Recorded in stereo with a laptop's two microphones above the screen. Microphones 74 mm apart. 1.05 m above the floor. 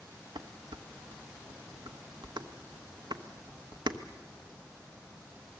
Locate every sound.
0.3 s dishes clattering: 85° right, 1.1 m